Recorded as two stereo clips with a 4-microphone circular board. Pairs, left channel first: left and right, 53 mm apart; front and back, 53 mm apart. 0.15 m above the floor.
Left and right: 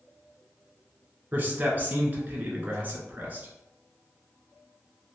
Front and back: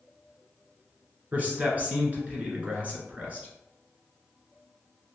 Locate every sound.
1.3 s a man speaking: 130° right, 1.5 m